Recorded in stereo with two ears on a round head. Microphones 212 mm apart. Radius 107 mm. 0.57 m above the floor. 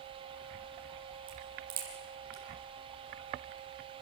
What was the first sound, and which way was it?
A crack, 40° right (ahead or behind).